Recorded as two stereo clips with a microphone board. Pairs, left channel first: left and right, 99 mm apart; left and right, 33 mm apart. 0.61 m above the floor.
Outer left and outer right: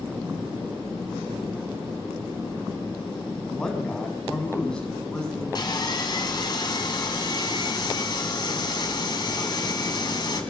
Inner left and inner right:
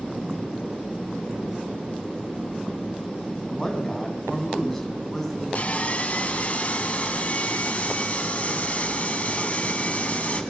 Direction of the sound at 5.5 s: 45° left (ahead or behind).